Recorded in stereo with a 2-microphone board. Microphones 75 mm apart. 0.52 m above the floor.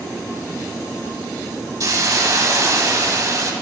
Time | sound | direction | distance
1.8 | a hiss | 45° right (ahead or behind) | 0.7 m